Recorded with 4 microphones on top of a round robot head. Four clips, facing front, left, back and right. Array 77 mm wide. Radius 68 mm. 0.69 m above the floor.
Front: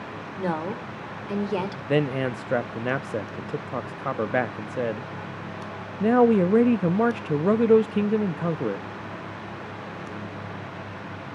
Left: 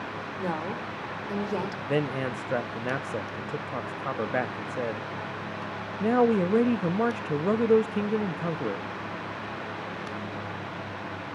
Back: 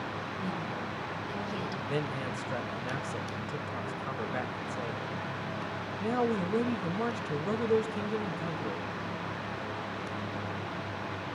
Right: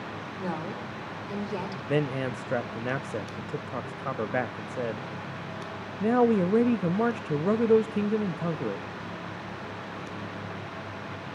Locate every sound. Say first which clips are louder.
0.4 s a woman speaking: left 2 dB, front 11 dB; 10° left, 2.5 m
1.9 s a man speaking: right 1 dB, front 12 dB; straight ahead, 0.6 m